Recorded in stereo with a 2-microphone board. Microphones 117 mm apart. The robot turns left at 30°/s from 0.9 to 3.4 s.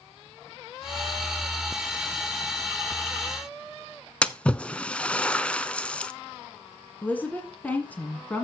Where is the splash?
10° left (ahead or behind), 0.5 m.